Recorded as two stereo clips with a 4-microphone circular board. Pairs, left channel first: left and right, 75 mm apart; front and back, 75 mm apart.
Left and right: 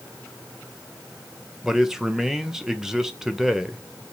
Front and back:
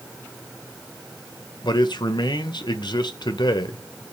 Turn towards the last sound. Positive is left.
turn(degrees=-5)